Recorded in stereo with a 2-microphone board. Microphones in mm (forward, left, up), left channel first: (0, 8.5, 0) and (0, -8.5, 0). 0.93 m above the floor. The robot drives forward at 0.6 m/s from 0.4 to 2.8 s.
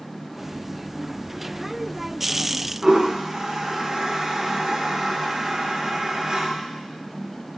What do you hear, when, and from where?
2.8 s a toilet flushing: 40° right (ahead or behind), 1.0 m